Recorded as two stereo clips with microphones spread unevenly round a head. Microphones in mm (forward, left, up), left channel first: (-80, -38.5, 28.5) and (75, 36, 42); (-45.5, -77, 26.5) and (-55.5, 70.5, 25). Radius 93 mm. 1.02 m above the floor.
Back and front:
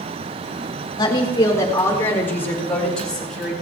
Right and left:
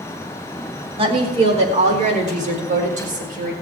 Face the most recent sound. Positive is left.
turn(degrees=115)